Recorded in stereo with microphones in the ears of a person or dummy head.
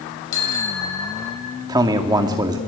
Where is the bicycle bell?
80° left, 4.5 m; by 1.6 s 85° left, 6 m.